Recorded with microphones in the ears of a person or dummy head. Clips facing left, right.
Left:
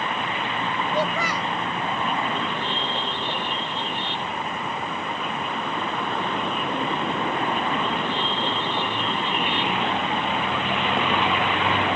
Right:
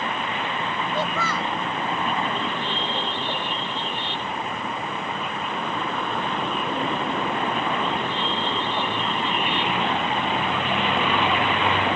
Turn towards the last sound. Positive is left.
turn(degrees=10)  # may be behind; listen again after turning